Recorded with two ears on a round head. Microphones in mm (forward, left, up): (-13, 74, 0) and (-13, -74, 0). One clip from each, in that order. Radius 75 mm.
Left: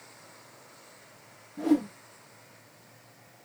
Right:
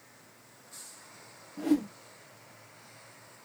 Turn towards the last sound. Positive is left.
turn(degrees=-15)  # may be behind; listen again after turning